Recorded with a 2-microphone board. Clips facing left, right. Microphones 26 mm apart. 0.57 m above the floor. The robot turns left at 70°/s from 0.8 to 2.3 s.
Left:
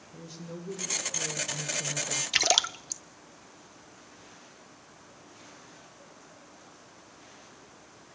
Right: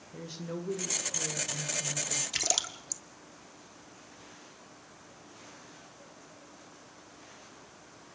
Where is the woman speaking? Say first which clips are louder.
Right 4 dB; 155° right, 1.8 m; by 2.2 s 105° left, 1.8 m.